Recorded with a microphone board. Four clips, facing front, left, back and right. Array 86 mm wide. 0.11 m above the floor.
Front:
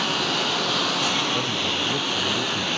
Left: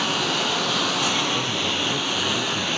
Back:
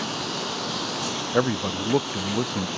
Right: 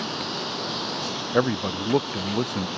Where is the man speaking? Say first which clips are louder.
Right 3 dB, back 3 dB; 130° right.